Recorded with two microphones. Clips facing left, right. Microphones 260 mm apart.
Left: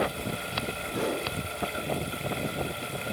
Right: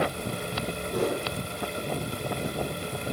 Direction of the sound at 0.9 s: 90° right.